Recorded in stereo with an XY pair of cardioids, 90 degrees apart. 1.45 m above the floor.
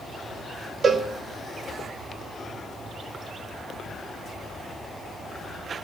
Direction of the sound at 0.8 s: 50° right.